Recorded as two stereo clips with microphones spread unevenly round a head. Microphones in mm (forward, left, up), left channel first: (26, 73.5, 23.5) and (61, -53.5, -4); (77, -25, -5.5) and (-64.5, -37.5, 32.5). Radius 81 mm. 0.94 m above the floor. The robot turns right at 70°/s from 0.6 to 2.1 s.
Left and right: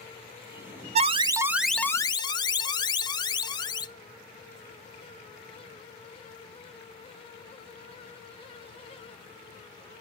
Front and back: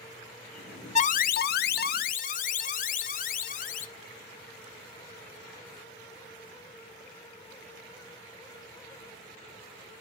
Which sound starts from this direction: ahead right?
An alarm, at 0.9 s.